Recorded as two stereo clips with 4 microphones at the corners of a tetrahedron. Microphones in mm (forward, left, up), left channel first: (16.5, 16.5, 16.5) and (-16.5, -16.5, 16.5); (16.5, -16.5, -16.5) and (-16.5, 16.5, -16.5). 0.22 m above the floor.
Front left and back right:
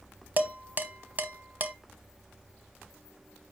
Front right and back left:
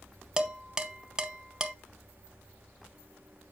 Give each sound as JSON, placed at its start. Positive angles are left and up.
{"t": 0.4, "sound": "dishes clattering", "azimuth_deg": -160, "distance_m": 0.9}